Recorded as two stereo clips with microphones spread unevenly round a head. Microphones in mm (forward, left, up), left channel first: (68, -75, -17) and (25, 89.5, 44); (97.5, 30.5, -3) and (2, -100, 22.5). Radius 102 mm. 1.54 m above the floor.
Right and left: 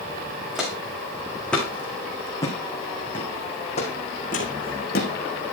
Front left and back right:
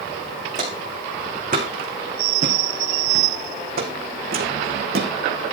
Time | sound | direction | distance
0.6 | footsteps | 175° right | 4 m